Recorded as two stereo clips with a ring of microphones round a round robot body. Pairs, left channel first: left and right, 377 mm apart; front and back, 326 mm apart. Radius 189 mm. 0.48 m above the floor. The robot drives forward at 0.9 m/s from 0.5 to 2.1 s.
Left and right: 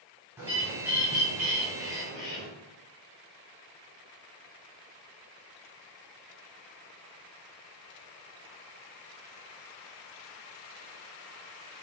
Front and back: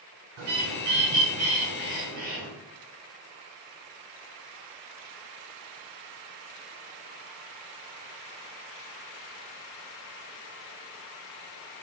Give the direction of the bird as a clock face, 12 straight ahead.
6 o'clock.